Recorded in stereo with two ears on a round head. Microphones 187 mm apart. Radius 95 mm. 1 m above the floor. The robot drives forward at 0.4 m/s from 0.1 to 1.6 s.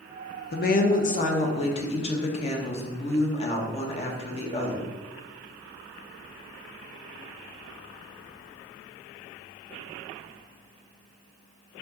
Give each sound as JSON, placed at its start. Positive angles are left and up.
{"t": 0.5, "sound": "a woman speaking", "side_deg": 50, "distance_m": 0.6}